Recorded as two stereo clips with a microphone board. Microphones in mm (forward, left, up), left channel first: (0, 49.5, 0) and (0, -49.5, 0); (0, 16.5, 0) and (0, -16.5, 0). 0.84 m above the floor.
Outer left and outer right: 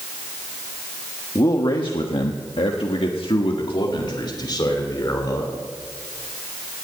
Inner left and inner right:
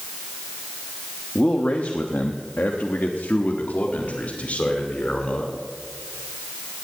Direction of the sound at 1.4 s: 40° left (ahead or behind).